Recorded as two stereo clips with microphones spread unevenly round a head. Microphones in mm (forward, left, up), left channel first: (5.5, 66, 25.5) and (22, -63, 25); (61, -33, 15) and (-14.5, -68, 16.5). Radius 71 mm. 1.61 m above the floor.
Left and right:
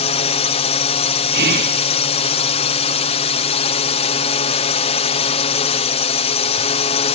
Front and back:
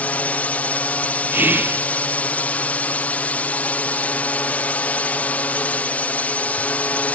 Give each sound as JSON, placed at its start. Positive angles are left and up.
{"t": 0.0, "sound": "a drone", "azimuth_deg": 95}
{"t": 1.3, "sound": "whispering", "azimuth_deg": -90}